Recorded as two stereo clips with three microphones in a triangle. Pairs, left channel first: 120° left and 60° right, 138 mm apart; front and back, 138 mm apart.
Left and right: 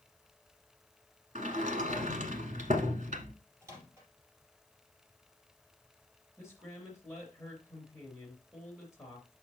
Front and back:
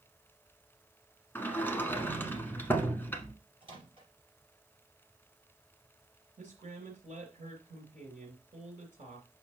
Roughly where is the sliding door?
Right.